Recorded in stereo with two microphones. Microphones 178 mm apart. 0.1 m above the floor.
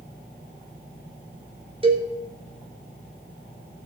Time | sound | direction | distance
1.8 | a cowbell | 30° right (ahead or behind) | 1.7 m